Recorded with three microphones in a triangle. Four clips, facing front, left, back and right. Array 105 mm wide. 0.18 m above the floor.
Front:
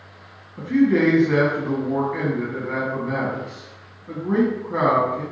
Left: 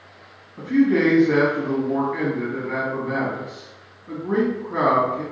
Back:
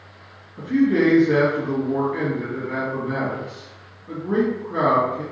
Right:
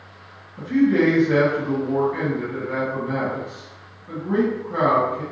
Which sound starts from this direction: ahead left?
A man speaking, at 0.6 s.